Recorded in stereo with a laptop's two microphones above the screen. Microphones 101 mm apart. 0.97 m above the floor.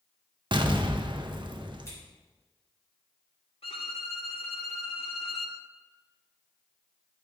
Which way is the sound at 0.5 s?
50° right (ahead or behind).